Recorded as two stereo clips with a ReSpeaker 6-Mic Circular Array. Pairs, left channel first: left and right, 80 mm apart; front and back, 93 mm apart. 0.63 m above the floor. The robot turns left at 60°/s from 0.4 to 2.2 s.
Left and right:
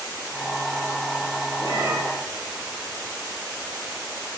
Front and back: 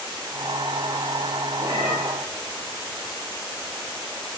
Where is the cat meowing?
115° left, 6.5 m; by 2.0 s 95° left, 6.5 m.